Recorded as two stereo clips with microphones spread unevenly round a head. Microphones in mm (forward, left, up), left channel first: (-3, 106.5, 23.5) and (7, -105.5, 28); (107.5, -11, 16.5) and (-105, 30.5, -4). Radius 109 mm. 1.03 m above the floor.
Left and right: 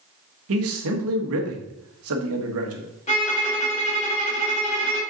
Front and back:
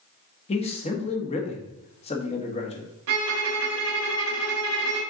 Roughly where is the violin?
Behind left.